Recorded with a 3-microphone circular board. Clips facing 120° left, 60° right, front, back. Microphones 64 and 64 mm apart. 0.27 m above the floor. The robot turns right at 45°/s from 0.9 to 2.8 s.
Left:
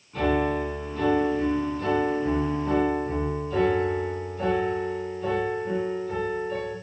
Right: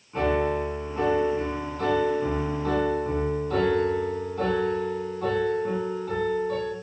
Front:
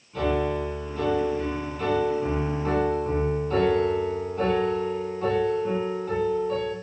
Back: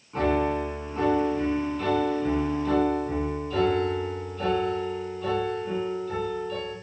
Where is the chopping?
No chopping in this recording.